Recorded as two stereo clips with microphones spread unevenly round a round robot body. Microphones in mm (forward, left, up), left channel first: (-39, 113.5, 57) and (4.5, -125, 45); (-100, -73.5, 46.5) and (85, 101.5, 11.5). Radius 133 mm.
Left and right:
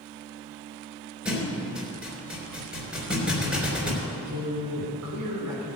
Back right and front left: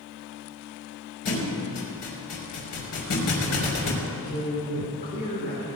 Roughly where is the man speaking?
Right.